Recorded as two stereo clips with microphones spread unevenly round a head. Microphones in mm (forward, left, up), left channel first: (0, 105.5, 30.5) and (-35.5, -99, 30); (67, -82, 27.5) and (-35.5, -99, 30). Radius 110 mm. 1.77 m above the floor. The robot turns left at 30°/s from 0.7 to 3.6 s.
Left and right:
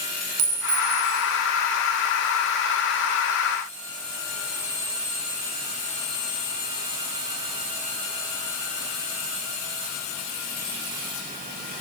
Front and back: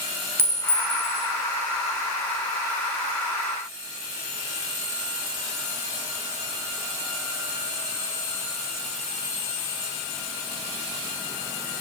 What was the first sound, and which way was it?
A clink, 105° right.